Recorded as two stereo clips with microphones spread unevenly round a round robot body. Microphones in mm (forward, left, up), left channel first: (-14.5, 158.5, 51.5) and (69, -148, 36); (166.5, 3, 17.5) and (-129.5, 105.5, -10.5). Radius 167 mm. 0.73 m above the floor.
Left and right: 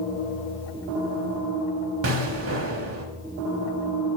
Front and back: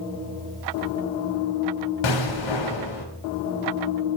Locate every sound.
2.0 s an explosion: 25° right, 1.4 m